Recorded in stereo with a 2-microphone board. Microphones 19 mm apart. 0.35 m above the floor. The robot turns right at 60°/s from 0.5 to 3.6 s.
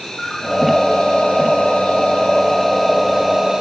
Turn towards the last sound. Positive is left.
turn(degrees=-145)